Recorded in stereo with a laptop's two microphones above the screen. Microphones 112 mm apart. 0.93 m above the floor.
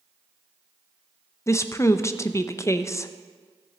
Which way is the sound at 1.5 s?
25° left (ahead or behind).